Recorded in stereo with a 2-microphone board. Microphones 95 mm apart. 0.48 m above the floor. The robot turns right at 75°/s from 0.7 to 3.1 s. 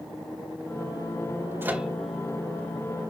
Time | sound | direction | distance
1.6 | a microwave | 25° right (ahead or behind) | 1.5 m